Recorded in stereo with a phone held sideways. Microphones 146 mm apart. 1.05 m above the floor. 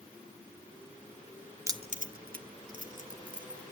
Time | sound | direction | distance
1.7 | keys jangling | 20° right (ahead or behind) | 0.6 m